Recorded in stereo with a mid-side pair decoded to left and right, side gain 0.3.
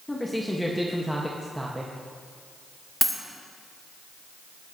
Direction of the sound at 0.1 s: 20° left.